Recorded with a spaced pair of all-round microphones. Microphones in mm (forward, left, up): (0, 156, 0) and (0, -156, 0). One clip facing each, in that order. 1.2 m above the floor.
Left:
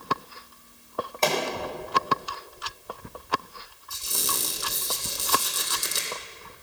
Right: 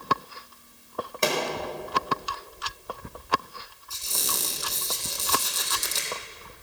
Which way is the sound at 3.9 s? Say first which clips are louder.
Left 1 dB; 20° left (ahead or behind).